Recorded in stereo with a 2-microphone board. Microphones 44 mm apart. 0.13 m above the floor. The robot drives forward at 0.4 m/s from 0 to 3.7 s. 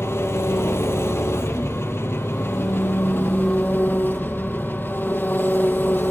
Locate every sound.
0.0 s an engine running: 65° left (ahead or behind), 1.6 m; by 6.1 s 50° left (ahead or behind), 1.9 m